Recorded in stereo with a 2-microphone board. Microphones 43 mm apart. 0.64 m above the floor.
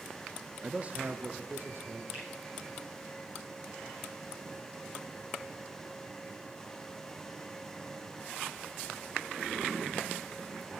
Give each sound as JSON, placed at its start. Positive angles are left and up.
{"t": 0.6, "sound": "a man speaking", "side_deg": -20, "distance_m": 0.6}
{"t": 2.1, "sound": "a finger snap", "side_deg": -25, "distance_m": 8.5}